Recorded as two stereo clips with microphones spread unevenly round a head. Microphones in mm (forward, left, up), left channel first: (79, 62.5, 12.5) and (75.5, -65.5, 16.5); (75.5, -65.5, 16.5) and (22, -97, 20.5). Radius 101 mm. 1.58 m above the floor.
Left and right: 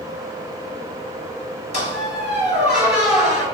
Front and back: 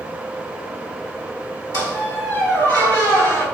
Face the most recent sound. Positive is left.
turn(degrees=70)